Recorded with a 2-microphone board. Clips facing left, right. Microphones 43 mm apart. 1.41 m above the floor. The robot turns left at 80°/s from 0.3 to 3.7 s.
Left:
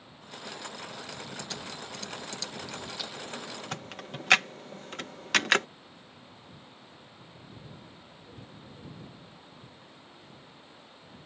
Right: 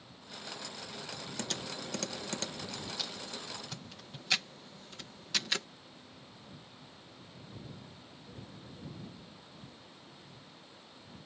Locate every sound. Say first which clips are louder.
1.4 s typing on a keyboard: even; 60° right (ahead or behind); by 5.7 s 65° left (ahead or behind)